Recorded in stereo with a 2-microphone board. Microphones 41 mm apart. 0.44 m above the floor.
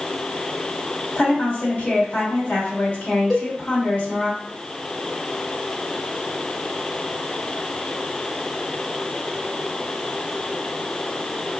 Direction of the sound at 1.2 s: 35° left (ahead or behind).